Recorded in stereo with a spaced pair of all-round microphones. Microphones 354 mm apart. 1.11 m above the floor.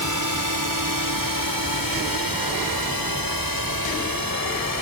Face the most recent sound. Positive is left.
turn(degrees=-65)  # may be behind; listen again after turning